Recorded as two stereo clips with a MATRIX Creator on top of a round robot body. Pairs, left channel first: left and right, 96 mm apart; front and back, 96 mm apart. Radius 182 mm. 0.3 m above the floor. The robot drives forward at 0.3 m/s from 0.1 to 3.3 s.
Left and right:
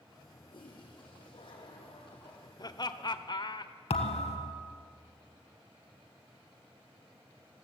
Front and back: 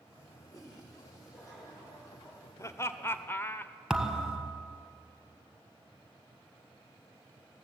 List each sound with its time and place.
0.5 s a toilet flushing: 55° left, 6 m; by 2.5 s 60° left, 5.5 m
2.6 s laughter: 55° left, 1.5 m; by 3.7 s 65° left, 1.4 m
3.9 s a thud: 95° left, 1.5 m